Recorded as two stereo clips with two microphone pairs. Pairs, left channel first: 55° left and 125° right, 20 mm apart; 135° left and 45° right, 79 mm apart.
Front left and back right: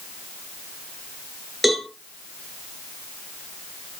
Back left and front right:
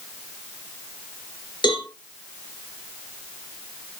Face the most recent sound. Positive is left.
turn(degrees=145)